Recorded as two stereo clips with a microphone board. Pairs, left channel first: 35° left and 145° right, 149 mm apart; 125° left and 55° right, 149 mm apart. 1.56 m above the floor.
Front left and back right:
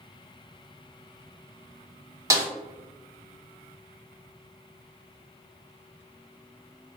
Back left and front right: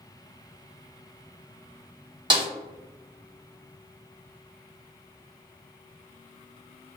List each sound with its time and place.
2.3 s a snare drum: 90° right, 0.9 m